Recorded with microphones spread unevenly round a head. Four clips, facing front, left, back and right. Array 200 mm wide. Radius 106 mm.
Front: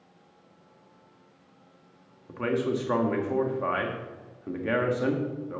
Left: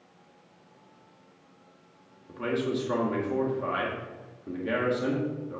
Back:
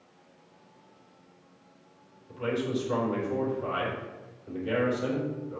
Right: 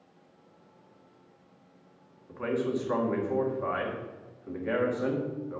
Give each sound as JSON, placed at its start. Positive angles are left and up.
{"t": 2.3, "sound": "a man speaking", "azimuth_deg": 25, "distance_m": 1.8}